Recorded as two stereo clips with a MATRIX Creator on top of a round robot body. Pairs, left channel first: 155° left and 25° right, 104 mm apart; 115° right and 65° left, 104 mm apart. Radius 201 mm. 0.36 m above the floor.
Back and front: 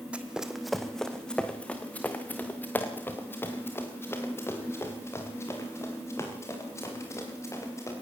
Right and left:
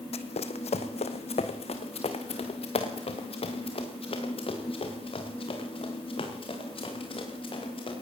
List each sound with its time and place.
0.1 s running footsteps: 100° right, 1.2 m; by 7.9 s 140° right, 6.5 m